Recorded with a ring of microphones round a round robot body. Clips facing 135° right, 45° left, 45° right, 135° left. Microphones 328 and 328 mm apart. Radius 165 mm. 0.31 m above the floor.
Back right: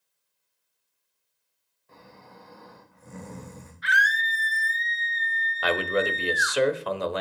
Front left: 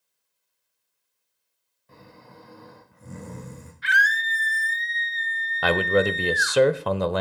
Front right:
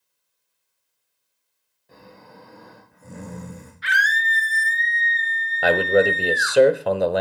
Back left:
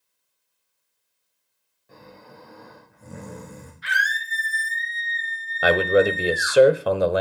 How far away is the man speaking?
About 1.2 m.